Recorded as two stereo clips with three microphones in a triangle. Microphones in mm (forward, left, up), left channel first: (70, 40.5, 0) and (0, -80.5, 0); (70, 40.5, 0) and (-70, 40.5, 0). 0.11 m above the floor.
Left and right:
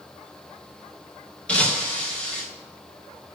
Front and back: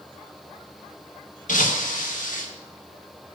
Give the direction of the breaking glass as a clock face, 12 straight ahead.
1 o'clock.